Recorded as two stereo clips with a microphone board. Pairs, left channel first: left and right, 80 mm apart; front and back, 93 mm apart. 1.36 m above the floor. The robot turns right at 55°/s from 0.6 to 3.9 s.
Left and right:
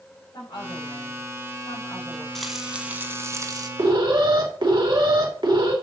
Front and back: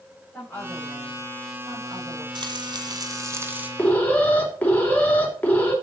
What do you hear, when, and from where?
0.3 s a woman speaking: 75° left, 8 m; by 2.2 s 165° left, 8 m
2.4 s frying: 175° left, 1.9 m; by 3.7 s 110° right, 1.9 m
3.8 s an alarm: 75° right, 3.5 m; by 5.7 s 70° right, 3.5 m